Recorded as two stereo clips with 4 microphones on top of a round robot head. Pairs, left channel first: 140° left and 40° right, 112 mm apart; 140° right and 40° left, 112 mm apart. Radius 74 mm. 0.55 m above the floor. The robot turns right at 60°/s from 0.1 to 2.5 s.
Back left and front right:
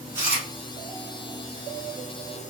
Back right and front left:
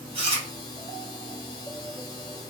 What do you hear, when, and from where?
0.1 s chewing: 20° left, 1.5 m; by 0.5 s 40° left, 1.5 m